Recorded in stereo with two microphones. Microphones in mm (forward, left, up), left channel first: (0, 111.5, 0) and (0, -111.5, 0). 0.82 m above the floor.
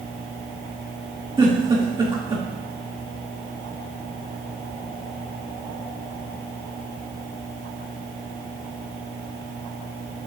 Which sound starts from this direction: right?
A giggle, at 1.4 s.